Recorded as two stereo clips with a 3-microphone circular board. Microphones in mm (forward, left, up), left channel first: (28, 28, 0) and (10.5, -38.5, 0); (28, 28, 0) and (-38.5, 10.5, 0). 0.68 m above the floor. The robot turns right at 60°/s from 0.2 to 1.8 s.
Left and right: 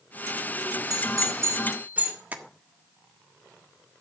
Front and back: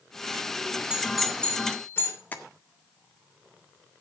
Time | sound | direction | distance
0.9 | a doorbell | 95° right | 3.5 m
2.3 | tapping | 45° right | 1.5 m